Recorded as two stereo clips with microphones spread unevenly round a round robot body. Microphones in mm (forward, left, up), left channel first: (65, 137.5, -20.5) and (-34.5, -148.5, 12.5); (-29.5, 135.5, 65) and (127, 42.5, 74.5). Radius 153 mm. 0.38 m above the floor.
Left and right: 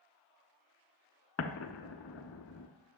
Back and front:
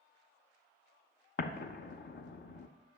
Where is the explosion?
120° left, 0.7 m.